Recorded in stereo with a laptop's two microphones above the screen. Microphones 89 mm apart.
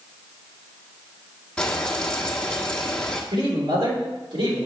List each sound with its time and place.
1.6 s frying: 10° left (ahead or behind), 1.3 m
3.3 s a man speaking: 80° right, 3 m